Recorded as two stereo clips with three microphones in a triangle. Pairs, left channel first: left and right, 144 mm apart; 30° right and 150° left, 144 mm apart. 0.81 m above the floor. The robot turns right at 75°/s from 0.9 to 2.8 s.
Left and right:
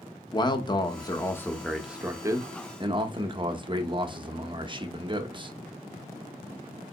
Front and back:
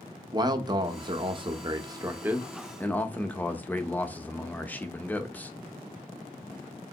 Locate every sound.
0.3 s a man speaking: 115° left, 0.5 m; by 5.5 s 100° right, 0.5 m